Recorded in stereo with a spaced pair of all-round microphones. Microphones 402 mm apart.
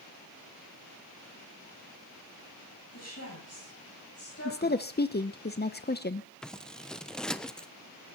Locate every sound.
2.9 s a woman speaking: 40° left (ahead or behind), 9.5 m; by 5.5 s 30° left (ahead or behind), 10.5 m
4.5 s a woman speaking: 25° left (ahead or behind), 0.6 m
6.4 s scissors: centre (ahead or behind), 0.7 m